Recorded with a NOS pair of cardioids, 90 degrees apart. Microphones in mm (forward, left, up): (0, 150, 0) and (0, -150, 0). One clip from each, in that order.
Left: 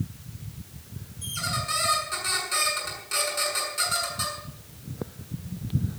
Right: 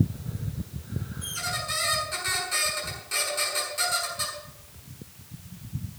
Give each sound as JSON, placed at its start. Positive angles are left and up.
{"t": 1.2, "sound": "a squeak", "azimuth_deg": 15, "distance_m": 7.0}